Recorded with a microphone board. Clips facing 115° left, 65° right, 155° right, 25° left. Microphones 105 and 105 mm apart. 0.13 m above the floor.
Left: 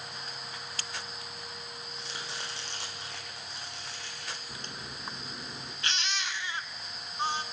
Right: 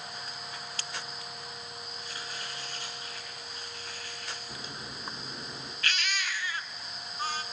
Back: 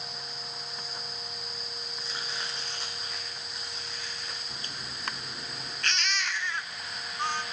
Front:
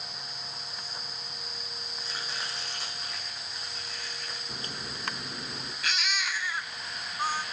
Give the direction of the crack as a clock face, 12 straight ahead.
12 o'clock.